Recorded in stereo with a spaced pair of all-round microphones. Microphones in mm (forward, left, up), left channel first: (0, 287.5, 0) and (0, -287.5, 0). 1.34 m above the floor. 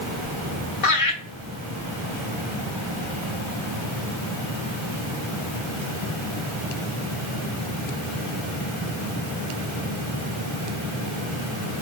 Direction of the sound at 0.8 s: 70° left (ahead or behind).